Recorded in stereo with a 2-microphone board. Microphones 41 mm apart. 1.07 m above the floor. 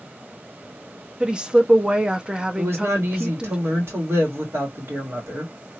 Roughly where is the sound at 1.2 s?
Centre.